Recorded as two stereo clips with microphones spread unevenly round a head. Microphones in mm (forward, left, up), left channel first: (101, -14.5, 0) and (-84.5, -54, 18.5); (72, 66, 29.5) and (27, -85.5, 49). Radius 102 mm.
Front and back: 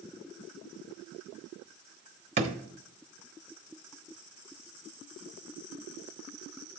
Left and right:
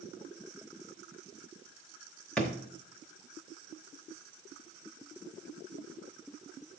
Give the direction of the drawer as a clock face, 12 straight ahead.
6 o'clock.